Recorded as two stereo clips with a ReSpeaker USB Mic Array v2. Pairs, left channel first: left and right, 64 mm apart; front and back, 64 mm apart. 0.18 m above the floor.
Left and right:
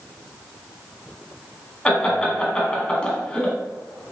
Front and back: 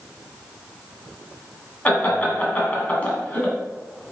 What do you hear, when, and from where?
1.9 s laughter: 35° left, 1.3 m